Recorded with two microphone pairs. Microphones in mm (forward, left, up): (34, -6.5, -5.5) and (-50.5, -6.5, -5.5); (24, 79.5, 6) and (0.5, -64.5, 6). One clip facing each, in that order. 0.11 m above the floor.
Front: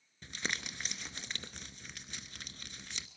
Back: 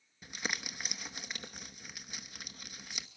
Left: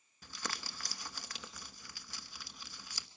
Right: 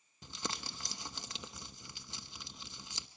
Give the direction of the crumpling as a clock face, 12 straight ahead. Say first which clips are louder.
Back 1 dB, right 2 dB; 4 o'clock.